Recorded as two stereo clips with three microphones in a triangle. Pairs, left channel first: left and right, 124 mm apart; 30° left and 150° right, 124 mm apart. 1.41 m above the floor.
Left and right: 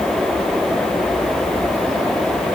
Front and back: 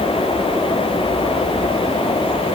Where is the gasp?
I don't hear a gasp.